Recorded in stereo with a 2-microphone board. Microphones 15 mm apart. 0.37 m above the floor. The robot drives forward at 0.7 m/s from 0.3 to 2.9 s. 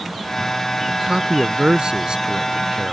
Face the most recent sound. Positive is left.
turn(degrees=-75)  # may be behind; listen again after turning